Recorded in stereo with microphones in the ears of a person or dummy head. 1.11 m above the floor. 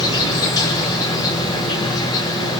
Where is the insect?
25° left (ahead or behind), 4 m.